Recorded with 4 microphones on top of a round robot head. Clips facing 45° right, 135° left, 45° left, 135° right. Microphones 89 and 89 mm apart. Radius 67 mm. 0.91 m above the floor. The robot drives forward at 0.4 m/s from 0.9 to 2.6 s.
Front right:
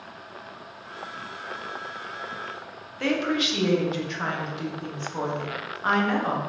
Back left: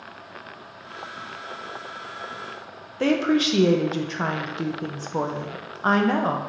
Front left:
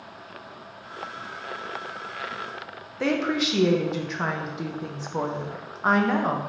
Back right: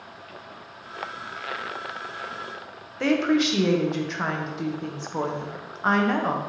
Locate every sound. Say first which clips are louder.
3.0 s a woman speaking: back left 5 dB, back right 3 dB; 130° left, 0.5 m